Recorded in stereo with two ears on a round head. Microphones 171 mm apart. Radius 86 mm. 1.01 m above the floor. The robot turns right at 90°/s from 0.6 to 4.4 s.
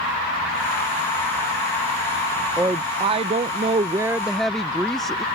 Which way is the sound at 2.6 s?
10° right (ahead or behind).